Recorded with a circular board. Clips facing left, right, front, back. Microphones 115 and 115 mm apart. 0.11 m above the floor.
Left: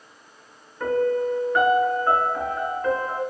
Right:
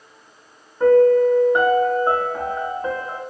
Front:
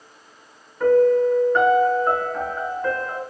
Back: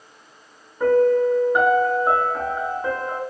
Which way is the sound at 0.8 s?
120° right.